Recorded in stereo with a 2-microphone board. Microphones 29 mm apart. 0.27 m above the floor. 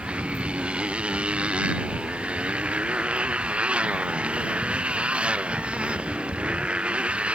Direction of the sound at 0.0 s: 35° right (ahead or behind).